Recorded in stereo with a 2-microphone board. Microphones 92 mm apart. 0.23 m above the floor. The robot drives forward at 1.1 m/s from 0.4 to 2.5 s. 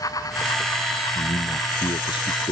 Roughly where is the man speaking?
Left.